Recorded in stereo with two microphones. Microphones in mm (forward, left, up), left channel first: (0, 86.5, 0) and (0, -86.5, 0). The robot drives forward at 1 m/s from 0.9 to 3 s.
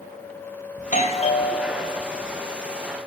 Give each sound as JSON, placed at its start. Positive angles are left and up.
{"t": 0.8, "sound": "a doorbell", "side_deg": 45, "distance_m": 1.6}